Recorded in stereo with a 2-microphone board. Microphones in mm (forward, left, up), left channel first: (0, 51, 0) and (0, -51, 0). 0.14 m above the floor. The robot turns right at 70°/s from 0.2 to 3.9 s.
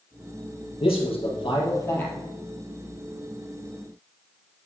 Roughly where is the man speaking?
Left.